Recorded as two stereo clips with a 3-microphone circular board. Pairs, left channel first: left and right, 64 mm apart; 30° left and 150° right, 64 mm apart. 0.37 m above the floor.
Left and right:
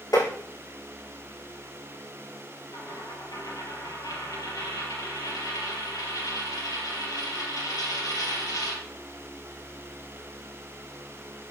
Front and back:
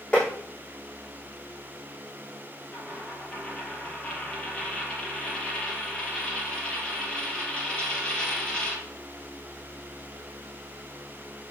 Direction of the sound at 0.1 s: 100° left.